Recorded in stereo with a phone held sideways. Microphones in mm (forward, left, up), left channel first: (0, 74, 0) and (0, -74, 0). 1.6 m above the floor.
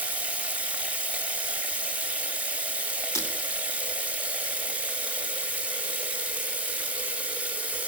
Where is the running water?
10° right (ahead or behind), 1.3 m.